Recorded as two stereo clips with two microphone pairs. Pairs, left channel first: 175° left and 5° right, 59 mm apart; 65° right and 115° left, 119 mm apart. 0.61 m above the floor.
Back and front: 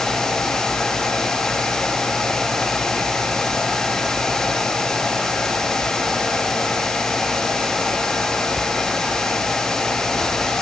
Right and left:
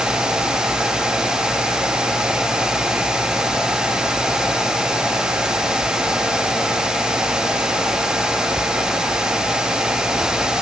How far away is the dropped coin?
I don't hear a dropped coin.